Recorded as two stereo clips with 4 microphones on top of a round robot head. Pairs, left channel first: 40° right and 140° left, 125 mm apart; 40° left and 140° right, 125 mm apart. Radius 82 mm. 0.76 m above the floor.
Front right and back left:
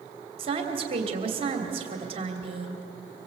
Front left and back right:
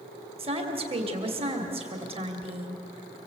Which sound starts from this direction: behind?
A woman speaking, at 0.4 s.